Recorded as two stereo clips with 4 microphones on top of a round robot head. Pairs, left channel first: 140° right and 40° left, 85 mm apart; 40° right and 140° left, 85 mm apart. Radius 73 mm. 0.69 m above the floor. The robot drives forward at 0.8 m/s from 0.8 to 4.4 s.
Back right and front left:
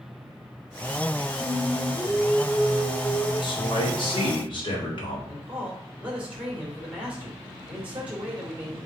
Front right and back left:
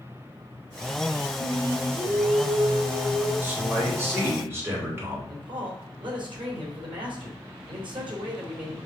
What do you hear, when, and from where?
1.4 s singing: 130° left, 1.8 m; by 3.3 s 155° left, 3 m
3.4 s a man speaking: 155° right, 2.5 m; by 5.2 s 160° right, 3 m
5.3 s a man speaking: 115° left, 2.5 m